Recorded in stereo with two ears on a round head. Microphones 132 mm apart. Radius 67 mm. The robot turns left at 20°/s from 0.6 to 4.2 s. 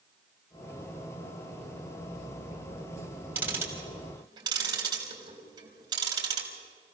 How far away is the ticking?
About 3.5 m.